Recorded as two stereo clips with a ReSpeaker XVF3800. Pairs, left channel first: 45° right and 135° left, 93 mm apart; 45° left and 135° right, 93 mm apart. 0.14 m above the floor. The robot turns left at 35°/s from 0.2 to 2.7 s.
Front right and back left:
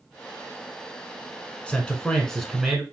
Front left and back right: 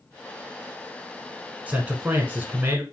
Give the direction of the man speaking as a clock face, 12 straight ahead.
3 o'clock.